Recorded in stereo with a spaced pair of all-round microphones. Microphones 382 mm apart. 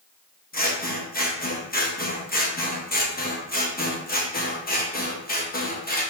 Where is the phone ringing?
No phone ringing in this recording.